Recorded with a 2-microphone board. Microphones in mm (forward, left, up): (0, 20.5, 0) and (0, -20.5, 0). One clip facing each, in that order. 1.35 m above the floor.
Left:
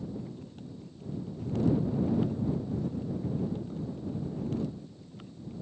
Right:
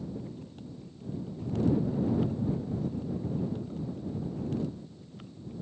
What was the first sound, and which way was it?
Only background noise.